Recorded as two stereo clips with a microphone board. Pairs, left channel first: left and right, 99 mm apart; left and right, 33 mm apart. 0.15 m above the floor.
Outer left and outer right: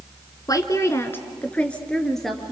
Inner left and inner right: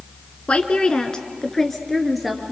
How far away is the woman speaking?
About 2.0 m.